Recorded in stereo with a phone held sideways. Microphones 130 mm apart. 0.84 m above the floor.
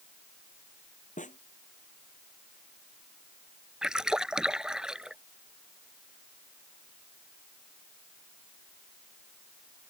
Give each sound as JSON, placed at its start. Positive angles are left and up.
{"t": 1.2, "sound": "a snare drum", "side_deg": 75}
{"t": 3.8, "sound": "a splash", "side_deg": -5}